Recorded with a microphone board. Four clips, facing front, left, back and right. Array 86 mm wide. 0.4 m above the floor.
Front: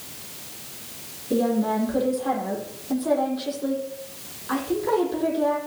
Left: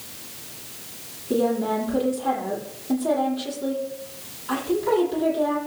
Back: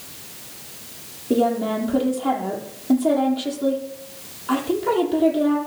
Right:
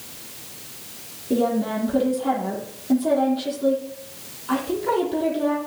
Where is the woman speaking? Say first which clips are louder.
Even, back 2 dB; 170° right, 10 m.